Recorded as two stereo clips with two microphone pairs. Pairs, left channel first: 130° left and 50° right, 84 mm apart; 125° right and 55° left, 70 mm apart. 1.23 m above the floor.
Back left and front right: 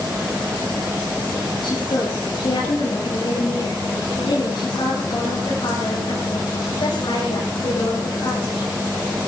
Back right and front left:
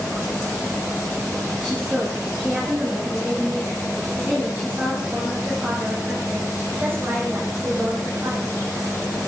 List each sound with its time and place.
1.6 s a woman speaking: 130° left, 10 m; by 8.7 s 105° left, 6.5 m